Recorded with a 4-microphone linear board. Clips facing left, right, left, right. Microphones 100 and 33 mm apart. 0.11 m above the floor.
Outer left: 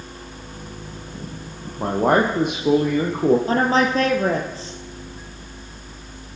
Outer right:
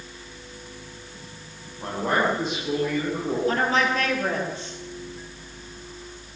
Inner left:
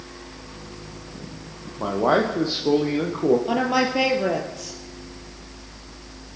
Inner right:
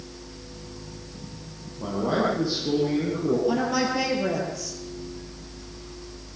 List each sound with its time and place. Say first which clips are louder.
1.8 s a man speaking: outer left 6 dB, inner left 5 dB; 55° left (ahead or behind), 4 m
3.5 s a woman speaking: outer left 4 dB, inner left 3 dB; 35° left (ahead or behind), 3 m